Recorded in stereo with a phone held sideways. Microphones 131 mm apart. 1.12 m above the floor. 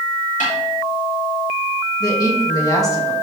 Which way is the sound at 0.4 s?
75° left (ahead or behind).